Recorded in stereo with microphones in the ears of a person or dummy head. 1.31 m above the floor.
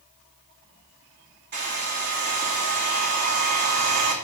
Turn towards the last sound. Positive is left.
turn(degrees=-55)  # may be behind; listen again after turning